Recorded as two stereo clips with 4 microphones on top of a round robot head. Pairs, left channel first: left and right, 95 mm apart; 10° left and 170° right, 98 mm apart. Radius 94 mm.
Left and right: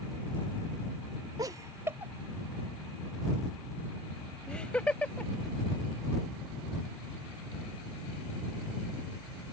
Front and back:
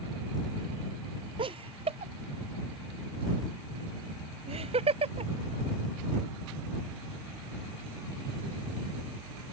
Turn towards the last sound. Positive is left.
turn(degrees=170)